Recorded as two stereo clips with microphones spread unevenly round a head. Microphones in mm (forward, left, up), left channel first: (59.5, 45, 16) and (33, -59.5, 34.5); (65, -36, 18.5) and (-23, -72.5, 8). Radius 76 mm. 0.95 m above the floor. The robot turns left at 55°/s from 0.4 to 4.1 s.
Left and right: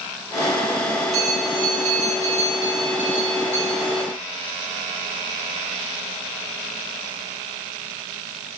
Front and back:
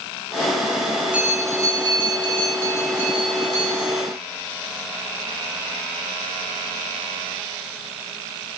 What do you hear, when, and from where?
1.1 s a bell: 80° right, 2.5 m; by 4.0 s 120° left, 2.5 m